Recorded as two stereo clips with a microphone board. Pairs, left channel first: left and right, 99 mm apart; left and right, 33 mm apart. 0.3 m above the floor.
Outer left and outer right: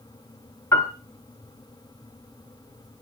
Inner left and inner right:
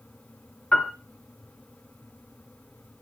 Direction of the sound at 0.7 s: 30° left (ahead or behind).